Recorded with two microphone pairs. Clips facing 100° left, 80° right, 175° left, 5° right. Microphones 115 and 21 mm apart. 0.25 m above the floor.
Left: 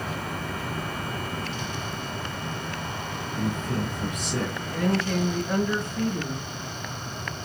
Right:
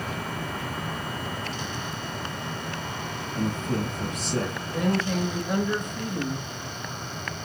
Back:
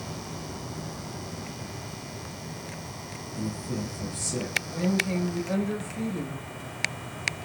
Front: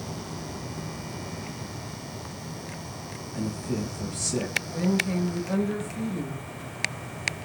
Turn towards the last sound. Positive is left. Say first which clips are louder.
# left 1 dB, front 1 dB
turn(degrees=-115)